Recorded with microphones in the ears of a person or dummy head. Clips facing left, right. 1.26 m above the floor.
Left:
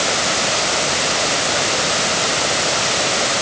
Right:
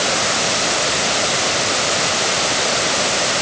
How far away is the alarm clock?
I don't hear an alarm clock.